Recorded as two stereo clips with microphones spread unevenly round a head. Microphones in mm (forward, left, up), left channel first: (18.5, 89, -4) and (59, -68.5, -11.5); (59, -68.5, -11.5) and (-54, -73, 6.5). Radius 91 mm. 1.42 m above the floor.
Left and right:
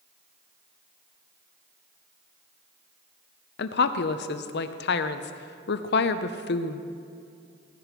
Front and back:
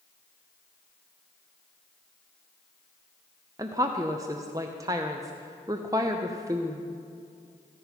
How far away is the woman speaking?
About 0.5 m.